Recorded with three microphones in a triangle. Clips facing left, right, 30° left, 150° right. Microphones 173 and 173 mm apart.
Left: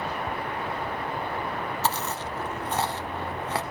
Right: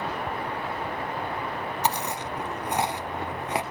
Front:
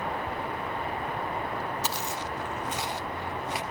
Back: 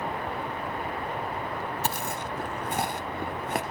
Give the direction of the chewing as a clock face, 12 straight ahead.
5 o'clock.